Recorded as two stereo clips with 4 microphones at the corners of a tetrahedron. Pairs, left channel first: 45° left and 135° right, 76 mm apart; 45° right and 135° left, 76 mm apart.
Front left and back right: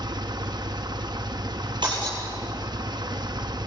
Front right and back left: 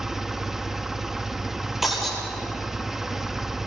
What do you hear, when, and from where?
0.0 s an engine running: 140° right, 1.0 m
1.8 s breaking glass: 140° right, 9.5 m